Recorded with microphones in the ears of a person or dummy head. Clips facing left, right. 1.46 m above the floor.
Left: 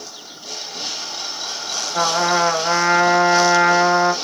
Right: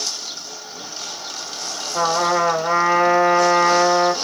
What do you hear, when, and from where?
1.9 s a trumpet: 45° left (ahead or behind), 1.8 m